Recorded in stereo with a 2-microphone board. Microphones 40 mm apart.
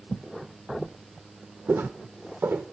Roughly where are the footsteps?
Right.